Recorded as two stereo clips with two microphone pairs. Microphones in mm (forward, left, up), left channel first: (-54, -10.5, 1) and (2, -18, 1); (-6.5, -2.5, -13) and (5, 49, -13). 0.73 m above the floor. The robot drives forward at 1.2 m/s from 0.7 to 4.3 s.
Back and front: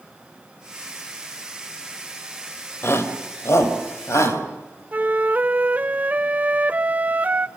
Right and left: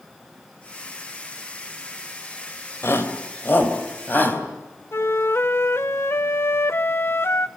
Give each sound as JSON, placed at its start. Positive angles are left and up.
{"t": 2.8, "sound": "a shout", "azimuth_deg": -145, "distance_m": 3.0}
{"t": 4.9, "sound": "a flute", "azimuth_deg": -70, "distance_m": 0.6}